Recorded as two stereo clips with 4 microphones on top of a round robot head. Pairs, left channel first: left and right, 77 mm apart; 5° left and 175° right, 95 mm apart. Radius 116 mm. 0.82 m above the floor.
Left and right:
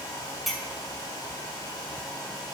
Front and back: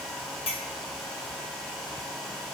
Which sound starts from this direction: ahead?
A clink, at 0.5 s.